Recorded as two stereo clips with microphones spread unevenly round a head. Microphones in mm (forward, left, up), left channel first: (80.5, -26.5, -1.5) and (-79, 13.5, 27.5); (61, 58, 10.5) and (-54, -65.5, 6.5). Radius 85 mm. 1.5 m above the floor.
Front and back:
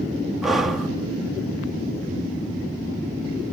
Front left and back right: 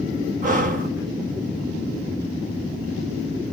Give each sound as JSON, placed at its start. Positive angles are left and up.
{"t": 0.4, "sound": "breathing", "azimuth_deg": -115, "distance_m": 1.1}